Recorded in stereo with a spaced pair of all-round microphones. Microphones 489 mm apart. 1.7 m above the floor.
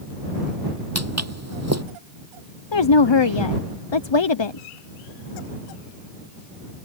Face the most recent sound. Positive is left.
turn(degrees=55)  # may be behind; listen again after turning